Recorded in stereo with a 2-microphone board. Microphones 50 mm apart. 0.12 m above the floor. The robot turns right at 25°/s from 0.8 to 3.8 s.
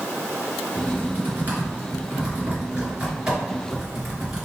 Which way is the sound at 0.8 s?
35° right (ahead or behind).